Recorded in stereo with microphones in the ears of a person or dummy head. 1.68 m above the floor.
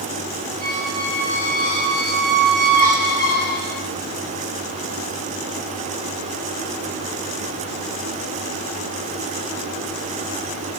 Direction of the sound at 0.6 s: 35° right (ahead or behind).